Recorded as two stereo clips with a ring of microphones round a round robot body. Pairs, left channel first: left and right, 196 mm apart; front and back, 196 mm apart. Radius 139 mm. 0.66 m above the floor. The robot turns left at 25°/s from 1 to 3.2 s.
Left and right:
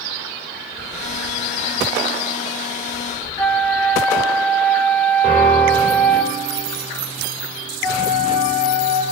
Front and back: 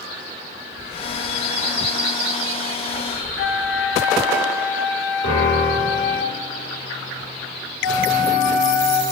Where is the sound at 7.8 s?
5° left, 1.3 m.